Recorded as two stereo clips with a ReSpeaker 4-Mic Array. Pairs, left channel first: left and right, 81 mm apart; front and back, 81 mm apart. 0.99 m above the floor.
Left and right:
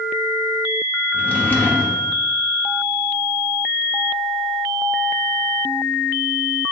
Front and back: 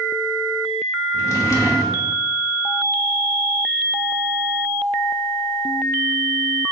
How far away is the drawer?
About 0.7 m.